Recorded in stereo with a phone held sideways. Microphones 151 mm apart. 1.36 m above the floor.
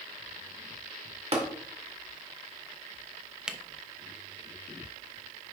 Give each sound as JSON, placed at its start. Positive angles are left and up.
{"t": 1.3, "sound": "tapping", "side_deg": -45, "distance_m": 1.8}
{"t": 3.5, "sound": "a camera shutter", "side_deg": -5, "distance_m": 0.6}